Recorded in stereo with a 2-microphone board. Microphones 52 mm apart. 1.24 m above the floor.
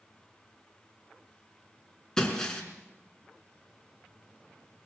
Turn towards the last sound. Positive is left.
turn(degrees=10)  # may be behind; listen again after turning